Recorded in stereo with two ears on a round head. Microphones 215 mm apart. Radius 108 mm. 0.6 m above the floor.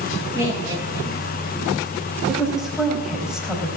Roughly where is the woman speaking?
Centre.